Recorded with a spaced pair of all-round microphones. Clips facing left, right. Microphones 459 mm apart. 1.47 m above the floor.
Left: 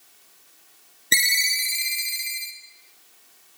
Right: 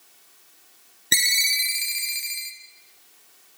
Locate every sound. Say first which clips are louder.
1.1 s a ringtone: even; 5° right (ahead or behind), 0.9 m